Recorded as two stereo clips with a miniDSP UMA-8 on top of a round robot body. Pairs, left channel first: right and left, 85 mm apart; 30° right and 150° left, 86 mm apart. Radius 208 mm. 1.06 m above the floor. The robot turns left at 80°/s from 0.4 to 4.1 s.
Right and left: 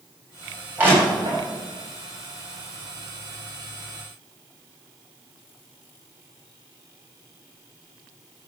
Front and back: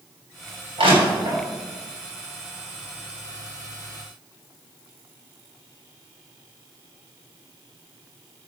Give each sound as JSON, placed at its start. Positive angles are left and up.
{"t": 0.8, "sound": "crushing", "azimuth_deg": 160, "distance_m": 7.0}